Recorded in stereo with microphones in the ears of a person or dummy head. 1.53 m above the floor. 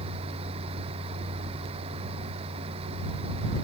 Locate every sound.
0.0 s a fan: 30° right (ahead or behind)